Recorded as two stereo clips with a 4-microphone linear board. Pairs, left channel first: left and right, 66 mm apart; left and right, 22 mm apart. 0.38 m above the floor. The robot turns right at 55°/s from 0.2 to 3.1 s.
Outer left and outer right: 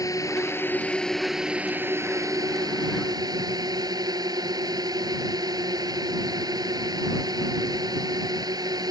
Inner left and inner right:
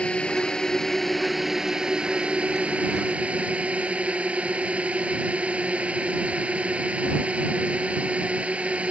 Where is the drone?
120° left; by 8.9 s 80° right.